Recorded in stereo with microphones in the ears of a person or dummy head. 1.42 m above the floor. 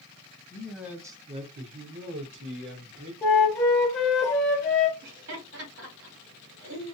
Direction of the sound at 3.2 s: 10° left (ahead or behind).